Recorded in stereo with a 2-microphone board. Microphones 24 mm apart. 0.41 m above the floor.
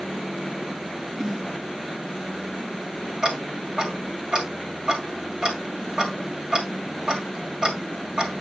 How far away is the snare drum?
About 5 m.